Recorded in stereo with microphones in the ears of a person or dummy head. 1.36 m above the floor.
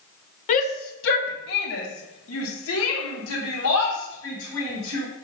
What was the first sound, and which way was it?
A shout, 40° left (ahead or behind).